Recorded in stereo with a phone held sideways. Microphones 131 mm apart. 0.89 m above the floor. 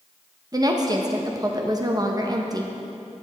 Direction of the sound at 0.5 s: 30° right (ahead or behind).